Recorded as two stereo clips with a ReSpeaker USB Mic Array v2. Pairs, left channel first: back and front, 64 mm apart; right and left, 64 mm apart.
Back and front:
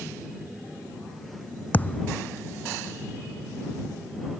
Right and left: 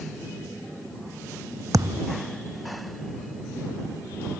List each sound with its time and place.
1.7 s a thud: 120° left